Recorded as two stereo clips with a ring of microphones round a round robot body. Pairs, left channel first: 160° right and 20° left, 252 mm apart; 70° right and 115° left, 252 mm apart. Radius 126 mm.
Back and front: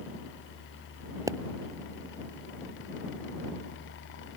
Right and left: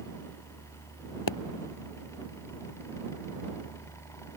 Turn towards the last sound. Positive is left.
turn(degrees=-55)